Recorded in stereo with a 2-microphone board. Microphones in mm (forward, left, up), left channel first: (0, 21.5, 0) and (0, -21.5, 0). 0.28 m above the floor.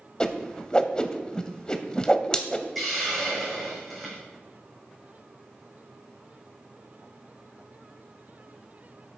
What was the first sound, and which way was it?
A whoosh, 20° left (ahead or behind).